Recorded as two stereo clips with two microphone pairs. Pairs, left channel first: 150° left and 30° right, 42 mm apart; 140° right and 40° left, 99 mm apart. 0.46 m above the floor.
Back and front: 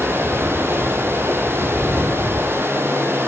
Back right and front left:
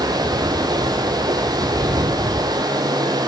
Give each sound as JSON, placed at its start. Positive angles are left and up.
{"t": 0.0, "sound": "running water", "azimuth_deg": -5, "distance_m": 3.5}